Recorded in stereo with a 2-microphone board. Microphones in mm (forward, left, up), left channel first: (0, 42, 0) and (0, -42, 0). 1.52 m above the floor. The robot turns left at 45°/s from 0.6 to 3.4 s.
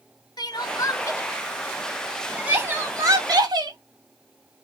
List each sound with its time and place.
0.4 s crying: 55° left (ahead or behind), 0.7 m; by 3.8 s 50° right (ahead or behind), 0.7 m